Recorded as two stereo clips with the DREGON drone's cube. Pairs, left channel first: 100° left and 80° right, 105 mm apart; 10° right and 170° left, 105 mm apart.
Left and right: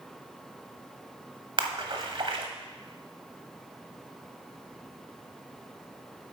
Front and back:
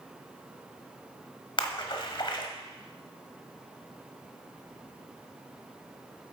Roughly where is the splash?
Ahead right.